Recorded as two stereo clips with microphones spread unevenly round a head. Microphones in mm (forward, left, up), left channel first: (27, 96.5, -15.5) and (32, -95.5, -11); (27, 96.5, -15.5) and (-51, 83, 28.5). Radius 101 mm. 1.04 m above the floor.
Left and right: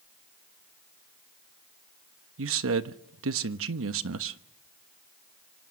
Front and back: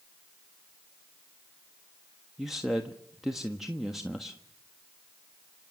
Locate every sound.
2.4 s a man speaking: 75° right, 1.2 m